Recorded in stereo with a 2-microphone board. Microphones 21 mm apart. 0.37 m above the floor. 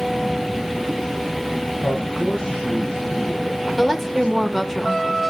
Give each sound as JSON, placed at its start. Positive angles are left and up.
{"t": 1.8, "sound": "a man speaking", "side_deg": 40, "distance_m": 6.5}
{"t": 3.8, "sound": "a woman speaking", "side_deg": 15, "distance_m": 1.1}